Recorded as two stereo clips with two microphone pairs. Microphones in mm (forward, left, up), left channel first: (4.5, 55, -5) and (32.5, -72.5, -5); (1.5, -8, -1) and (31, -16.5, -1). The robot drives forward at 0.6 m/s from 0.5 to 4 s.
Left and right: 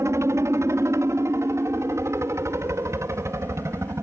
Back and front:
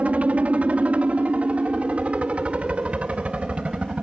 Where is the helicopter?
20° right; by 4.0 s 25° right.